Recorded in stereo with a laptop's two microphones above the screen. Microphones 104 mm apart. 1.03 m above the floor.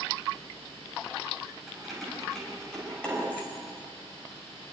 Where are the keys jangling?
Centre (ahead or behind), 4.5 m; by 3.5 s 20° left (ahead or behind), 3.5 m.